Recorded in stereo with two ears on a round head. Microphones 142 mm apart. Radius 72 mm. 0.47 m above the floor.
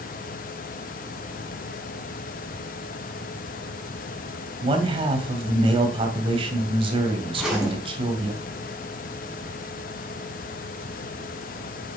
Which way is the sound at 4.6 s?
35° right (ahead or behind).